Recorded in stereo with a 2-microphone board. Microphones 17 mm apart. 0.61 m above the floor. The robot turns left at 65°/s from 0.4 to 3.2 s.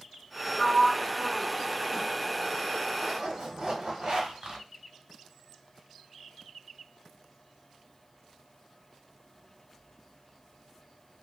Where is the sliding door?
20° left (ahead or behind), 0.9 m; by 2.0 s 5° left (ahead or behind), 0.9 m.